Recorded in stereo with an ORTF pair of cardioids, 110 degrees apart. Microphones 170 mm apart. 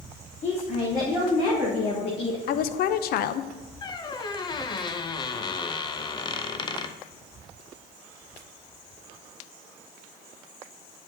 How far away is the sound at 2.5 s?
About 0.6 m.